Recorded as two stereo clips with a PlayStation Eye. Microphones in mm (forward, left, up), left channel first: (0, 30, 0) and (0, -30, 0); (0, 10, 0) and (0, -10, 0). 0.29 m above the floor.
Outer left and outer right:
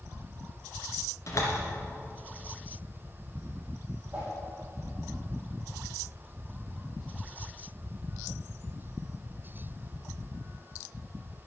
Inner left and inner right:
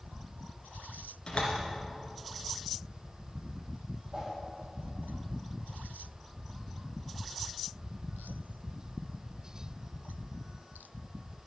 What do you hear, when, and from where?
1.3 s a door slam: 55° left (ahead or behind), 2.5 m
4.1 s a whoosh: 25° right (ahead or behind), 4 m